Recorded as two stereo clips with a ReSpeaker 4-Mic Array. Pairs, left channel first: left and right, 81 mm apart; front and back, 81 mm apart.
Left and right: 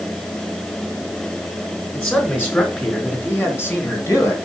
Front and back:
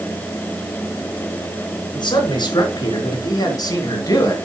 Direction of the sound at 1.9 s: 20° left.